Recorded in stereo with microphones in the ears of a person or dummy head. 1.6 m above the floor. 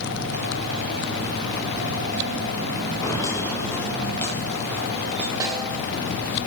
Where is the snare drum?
20° right (ahead or behind), 8.5 m.